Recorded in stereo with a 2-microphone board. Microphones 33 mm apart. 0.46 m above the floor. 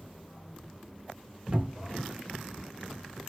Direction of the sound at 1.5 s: 35° right (ahead or behind).